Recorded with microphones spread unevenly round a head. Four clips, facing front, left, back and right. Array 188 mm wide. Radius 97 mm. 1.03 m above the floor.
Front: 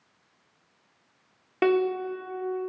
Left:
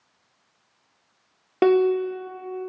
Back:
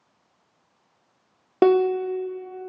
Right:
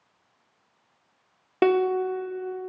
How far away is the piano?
About 0.8 m.